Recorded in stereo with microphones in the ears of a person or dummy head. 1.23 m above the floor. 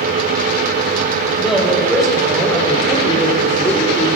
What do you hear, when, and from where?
1.4 s a woman speaking: 5° right (ahead or behind), 5 m; by 4.1 s 10° left (ahead or behind), 3 m